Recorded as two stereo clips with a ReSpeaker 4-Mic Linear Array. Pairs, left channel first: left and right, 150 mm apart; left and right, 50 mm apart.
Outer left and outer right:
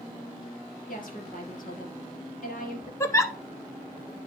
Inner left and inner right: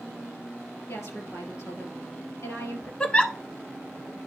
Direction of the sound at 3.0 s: 20° left (ahead or behind).